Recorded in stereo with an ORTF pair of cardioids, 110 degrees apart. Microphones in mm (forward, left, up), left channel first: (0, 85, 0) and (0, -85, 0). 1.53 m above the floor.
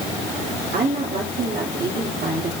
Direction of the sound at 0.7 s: 70° right.